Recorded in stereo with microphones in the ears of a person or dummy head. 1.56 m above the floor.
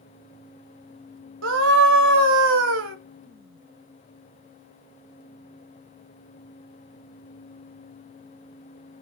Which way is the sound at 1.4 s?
70° right (ahead or behind).